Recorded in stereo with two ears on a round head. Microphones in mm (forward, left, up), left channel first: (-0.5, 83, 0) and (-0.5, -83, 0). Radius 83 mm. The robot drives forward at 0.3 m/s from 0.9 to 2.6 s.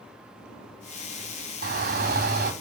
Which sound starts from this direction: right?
A shout, at 1.6 s.